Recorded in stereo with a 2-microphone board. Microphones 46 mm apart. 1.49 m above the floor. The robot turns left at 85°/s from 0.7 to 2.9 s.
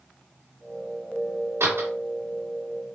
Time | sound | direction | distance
1.6 | a door slam | 70° right (ahead or behind) | 2.5 m